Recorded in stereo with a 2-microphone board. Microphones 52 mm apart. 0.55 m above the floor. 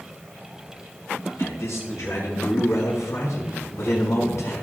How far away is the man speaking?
About 6 m.